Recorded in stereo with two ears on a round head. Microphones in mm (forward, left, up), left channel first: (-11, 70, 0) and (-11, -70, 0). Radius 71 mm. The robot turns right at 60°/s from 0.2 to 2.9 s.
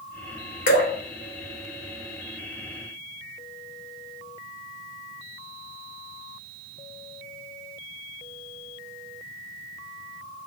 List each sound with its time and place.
0.7 s dripping: 55° left (ahead or behind), 0.9 m; by 0.9 s 45° left (ahead or behind), 0.9 m